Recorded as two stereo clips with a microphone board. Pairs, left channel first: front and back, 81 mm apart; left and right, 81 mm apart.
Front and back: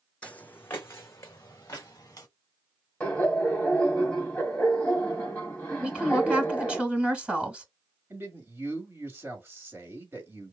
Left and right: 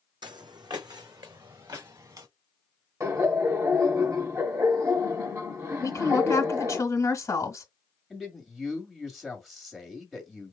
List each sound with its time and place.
0.2 s footsteps: 75° right, 0.7 m; by 2.3 s 50° right, 1.8 m
3.0 s laughter: 65° right, 2.0 m
5.8 s a woman speaking: 110° left, 1.4 m
8.1 s a man speaking: 175° right, 1.5 m